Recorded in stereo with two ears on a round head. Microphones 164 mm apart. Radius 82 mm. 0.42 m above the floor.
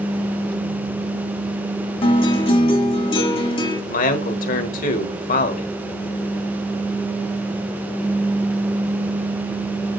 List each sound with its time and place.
2.0 s a guitar: 30° left (ahead or behind), 1.3 m
3.9 s a man speaking: 45° left (ahead or behind), 1.3 m